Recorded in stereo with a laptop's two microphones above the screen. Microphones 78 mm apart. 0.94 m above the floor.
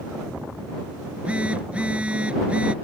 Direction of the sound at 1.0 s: 15° right (ahead or behind).